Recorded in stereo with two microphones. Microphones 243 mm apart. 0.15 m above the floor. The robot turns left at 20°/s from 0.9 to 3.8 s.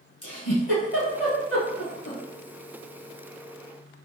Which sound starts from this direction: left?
A giggle, at 0.2 s.